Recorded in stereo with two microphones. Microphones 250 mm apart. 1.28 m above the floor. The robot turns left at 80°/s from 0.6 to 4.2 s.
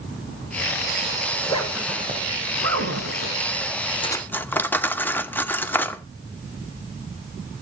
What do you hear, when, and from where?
1.3 s a zipper: 30° left (ahead or behind), 1.7 m; by 3.4 s 40° right (ahead or behind), 1.7 m
4.0 s cutlery clinking: 20° left (ahead or behind), 0.8 m; by 6.0 s 5° left (ahead or behind), 0.8 m